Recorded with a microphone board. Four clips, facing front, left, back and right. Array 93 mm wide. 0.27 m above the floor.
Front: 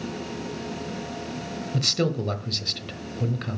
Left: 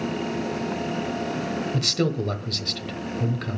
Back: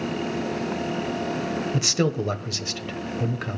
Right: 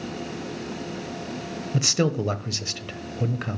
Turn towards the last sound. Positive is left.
turn(degrees=-135)